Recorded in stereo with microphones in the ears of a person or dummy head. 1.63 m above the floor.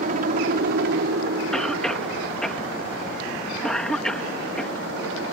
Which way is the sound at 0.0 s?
50° right (ahead or behind).